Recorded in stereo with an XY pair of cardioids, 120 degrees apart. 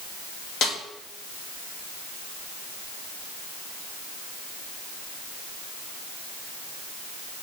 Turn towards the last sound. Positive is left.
turn(degrees=65)